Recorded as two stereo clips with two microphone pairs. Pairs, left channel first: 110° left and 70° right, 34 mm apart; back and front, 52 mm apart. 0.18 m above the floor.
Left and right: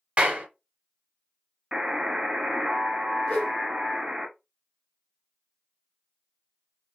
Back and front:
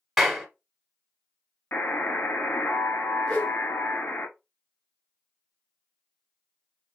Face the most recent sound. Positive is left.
turn(degrees=105)